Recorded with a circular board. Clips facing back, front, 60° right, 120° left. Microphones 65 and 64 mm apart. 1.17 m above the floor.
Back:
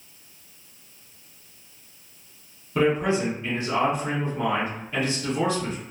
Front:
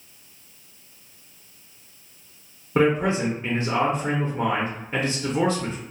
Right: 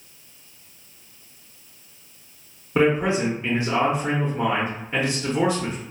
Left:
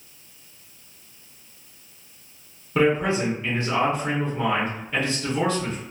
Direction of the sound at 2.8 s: Straight ahead.